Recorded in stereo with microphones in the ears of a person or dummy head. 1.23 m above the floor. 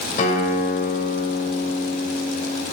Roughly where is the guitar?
Left.